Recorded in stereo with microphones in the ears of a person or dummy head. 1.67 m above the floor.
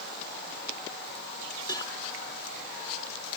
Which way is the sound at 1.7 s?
20° left (ahead or behind).